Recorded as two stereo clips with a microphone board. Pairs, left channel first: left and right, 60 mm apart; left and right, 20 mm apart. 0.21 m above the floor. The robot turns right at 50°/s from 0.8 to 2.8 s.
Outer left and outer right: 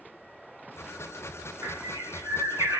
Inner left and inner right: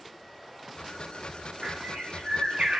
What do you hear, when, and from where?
1.6 s a bird: 120° right, 2.5 m; by 2.8 s 60° right, 2.5 m